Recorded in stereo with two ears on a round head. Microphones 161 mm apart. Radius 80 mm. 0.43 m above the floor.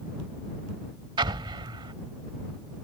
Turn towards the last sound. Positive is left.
turn(degrees=-25)  # may be behind; listen again after turning